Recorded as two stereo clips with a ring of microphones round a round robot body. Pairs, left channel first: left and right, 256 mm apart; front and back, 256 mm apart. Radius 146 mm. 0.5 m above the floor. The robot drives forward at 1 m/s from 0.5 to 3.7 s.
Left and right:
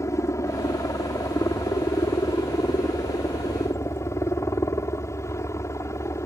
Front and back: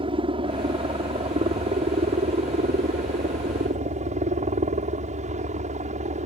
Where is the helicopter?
150° left; by 6.3 s 160° left.